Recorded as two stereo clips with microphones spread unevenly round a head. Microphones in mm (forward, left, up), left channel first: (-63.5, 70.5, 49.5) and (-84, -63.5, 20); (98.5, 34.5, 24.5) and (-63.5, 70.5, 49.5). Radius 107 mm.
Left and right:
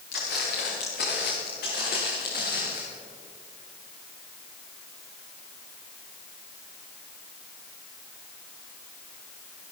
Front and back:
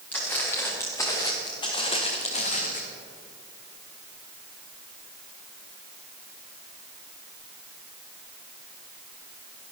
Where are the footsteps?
70° left, 4.5 m; by 2.8 s 30° left, 3 m.